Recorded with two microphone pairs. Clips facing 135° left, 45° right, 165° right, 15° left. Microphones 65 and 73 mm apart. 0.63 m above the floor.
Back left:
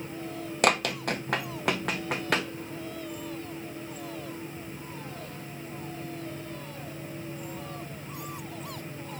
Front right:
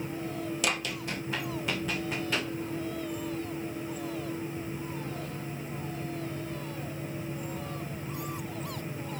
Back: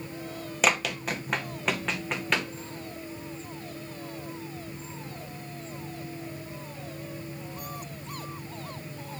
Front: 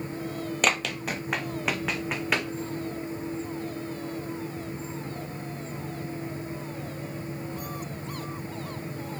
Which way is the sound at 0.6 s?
110° left.